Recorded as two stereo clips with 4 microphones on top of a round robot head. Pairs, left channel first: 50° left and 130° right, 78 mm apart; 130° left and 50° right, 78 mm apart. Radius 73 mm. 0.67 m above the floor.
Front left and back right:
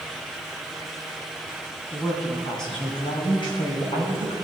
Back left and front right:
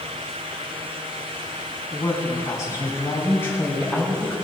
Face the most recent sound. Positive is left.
turn(degrees=50)